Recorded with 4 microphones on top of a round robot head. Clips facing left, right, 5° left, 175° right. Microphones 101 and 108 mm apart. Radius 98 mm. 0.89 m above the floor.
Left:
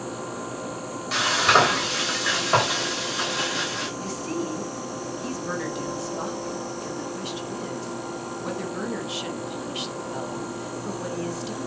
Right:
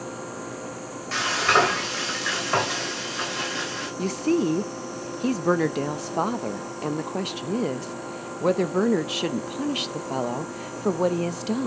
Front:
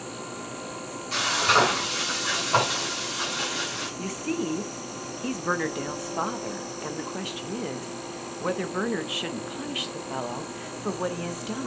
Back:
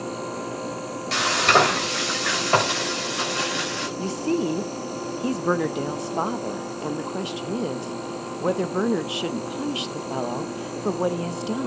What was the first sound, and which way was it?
Frying, 170° left.